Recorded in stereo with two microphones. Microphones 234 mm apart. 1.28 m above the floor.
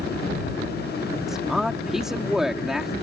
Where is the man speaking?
Centre (ahead or behind).